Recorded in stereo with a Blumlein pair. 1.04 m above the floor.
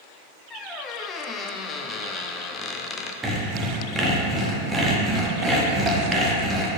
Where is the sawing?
15° right, 1.2 m.